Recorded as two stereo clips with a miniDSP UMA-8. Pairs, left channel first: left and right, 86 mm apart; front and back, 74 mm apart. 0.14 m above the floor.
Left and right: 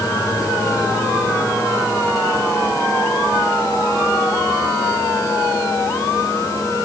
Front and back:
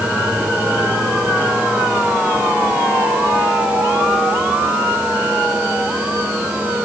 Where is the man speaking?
No man speaking in this recording.